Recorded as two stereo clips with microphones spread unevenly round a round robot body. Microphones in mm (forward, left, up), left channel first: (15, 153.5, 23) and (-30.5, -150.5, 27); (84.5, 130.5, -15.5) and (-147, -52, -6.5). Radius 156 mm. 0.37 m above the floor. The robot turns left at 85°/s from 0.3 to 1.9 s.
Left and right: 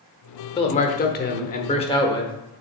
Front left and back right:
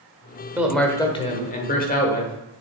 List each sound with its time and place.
0.6 s a man speaking: 140° left, 0.9 m; by 2.3 s 25° left, 0.9 m